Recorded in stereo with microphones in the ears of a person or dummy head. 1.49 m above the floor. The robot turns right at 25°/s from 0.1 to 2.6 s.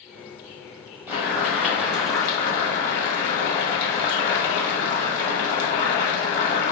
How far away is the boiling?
About 0.8 m.